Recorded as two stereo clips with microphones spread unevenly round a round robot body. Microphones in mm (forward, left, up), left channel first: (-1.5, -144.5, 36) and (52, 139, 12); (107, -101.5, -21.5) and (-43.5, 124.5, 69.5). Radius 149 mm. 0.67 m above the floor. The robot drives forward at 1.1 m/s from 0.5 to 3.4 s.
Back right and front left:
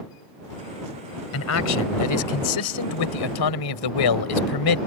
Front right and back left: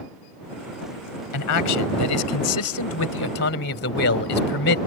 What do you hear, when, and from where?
1.3 s a man speaking: 60° right; by 4.8 s 105° right